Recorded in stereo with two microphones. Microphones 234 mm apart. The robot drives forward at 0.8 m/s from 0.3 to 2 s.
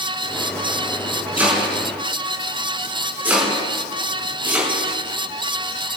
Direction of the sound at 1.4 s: 5° right (ahead or behind).